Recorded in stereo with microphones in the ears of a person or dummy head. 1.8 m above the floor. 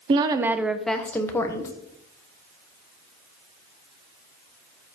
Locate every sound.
0.1 s a woman speaking: 30° right (ahead or behind), 0.6 m; by 1.7 s 20° left (ahead or behind), 1.2 m